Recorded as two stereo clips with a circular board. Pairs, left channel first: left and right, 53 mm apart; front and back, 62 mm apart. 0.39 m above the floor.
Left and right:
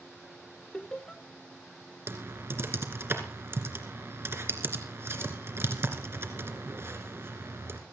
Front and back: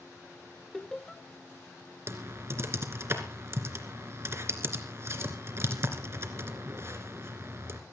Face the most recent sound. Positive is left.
turn(degrees=-130)